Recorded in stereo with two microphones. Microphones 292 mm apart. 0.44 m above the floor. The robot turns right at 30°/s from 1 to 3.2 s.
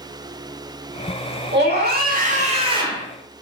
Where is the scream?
60° right, 1.0 m; by 3.1 s 15° right, 1.0 m.